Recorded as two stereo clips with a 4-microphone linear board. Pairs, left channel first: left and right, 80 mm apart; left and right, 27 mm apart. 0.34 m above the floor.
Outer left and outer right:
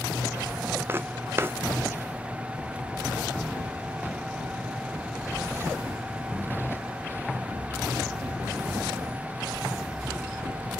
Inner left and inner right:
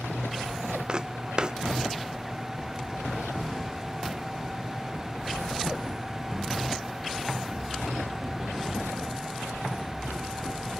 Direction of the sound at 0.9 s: 30° right (ahead or behind).